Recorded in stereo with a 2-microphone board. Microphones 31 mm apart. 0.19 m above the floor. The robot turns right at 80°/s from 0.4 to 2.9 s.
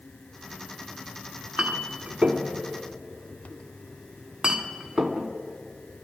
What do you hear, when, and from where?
1.6 s a clink: 35° right (ahead or behind), 1.3 m; by 5.3 s 20° right (ahead or behind), 1.3 m